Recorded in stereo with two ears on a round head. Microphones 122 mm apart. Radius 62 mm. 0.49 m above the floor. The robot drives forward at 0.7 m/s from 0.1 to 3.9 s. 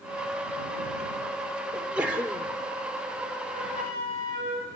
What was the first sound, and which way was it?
A sneeze, 10° right (ahead or behind).